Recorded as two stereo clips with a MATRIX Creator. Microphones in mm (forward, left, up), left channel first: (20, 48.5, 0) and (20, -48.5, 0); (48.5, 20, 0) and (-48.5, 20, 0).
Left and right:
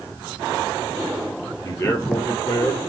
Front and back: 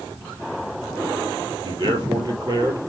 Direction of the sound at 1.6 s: 150° left.